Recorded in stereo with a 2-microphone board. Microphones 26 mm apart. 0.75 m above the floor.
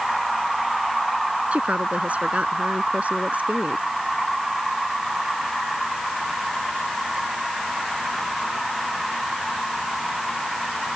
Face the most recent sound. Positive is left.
turn(degrees=-80)